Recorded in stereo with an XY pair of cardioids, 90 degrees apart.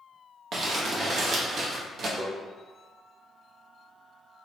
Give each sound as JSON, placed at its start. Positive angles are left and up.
{"t": 0.5, "sound": "crumpling", "azimuth_deg": -65, "distance_m": 0.6}
{"t": 2.2, "sound": "tapping", "azimuth_deg": -15, "distance_m": 0.9}